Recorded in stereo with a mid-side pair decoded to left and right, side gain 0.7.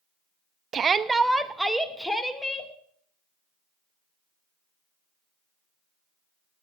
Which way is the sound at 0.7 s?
35° right.